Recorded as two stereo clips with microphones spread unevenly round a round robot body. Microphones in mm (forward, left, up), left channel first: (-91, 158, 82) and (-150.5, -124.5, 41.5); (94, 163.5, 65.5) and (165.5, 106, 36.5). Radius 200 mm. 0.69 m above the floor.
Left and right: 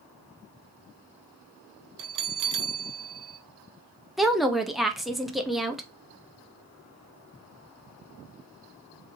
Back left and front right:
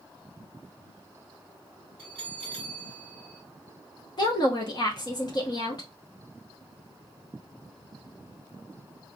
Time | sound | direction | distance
2.0 | a bell | 120° right | 0.6 m
4.2 | a woman speaking | straight behind | 0.9 m